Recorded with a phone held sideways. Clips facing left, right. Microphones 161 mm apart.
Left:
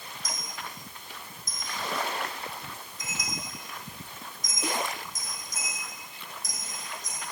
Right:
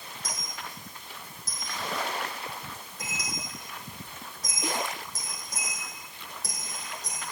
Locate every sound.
0.2 s a dropped coin: 70° right (ahead or behind), 3.5 m